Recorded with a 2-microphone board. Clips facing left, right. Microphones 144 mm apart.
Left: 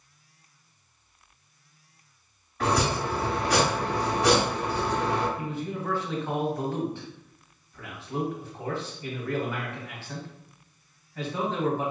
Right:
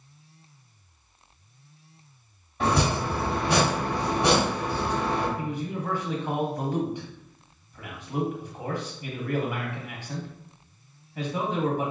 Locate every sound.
2.6 s chopping: 25° right (ahead or behind), 1.8 m
5.4 s a man speaking: 15° right (ahead or behind), 1.1 m